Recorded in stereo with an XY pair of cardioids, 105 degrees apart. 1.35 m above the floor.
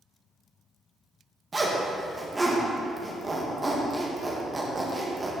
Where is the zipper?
25° right, 1.8 m.